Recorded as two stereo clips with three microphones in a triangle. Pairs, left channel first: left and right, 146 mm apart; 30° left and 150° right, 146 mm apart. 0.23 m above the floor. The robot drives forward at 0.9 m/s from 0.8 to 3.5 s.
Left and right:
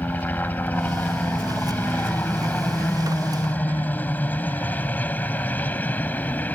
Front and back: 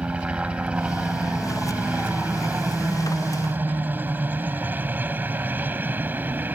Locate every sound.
0.0 s a helicopter: 145° left; by 6.5 s 150° left